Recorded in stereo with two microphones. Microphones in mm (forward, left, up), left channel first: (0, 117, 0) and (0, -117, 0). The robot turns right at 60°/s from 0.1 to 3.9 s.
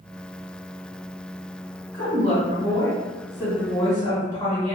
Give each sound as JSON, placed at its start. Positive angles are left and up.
{"t": 1.9, "sound": "a woman speaking", "azimuth_deg": -95, "distance_m": 1.6}